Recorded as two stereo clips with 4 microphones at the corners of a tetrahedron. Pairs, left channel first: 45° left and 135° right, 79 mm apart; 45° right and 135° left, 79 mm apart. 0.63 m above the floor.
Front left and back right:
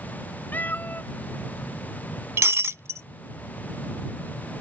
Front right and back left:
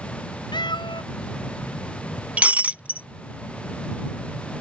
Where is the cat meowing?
25° right.